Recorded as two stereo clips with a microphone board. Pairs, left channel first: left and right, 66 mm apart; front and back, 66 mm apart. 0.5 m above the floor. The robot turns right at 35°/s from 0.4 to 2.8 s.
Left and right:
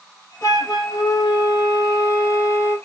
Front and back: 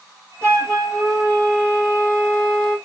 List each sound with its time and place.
0.4 s a flute: 70° left, 3 m; by 2.8 s 150° left, 3 m